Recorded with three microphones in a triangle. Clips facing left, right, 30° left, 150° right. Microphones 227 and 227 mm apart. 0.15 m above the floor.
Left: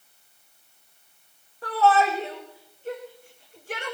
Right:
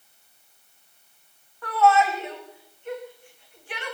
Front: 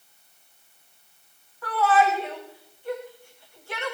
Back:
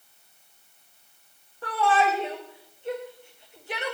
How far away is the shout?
About 7.5 m.